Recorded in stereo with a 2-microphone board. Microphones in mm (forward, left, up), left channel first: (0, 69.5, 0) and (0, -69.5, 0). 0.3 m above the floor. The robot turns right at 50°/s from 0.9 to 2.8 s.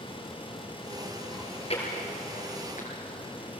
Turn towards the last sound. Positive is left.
turn(degrees=75)  # may be behind; listen again after turning